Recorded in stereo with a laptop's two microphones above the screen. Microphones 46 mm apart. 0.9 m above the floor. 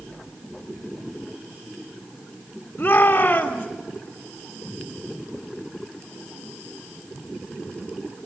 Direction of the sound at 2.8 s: 50° left (ahead or behind).